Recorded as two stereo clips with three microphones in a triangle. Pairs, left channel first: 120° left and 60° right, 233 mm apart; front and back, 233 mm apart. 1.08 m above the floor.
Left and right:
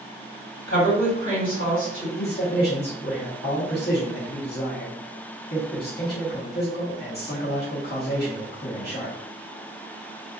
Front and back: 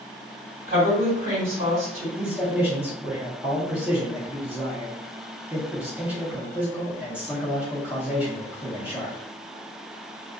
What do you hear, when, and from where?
0.7 s a woman speaking: 135° left, 1.7 m
2.2 s a man speaking: 95° left, 0.8 m